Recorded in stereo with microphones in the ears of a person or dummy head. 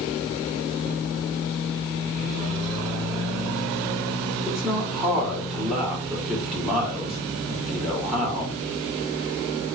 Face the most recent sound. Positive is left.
turn(degrees=0)  # may be behind; listen again after turning